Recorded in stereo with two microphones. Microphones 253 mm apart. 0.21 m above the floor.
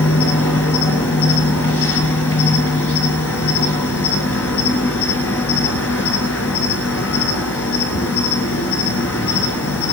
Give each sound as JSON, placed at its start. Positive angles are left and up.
{"t": 0.0, "sound": "an insect", "side_deg": 65, "distance_m": 1.1}